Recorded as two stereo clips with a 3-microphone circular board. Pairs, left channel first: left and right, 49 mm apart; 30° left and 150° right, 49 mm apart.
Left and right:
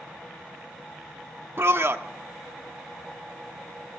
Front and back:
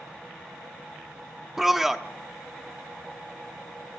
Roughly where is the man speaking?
Right.